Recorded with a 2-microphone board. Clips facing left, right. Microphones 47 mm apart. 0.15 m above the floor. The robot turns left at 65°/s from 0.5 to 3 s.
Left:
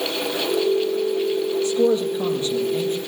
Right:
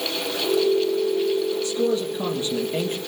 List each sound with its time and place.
1.6 s a man speaking: 35° left, 4 m; by 3.0 s 55° right, 4 m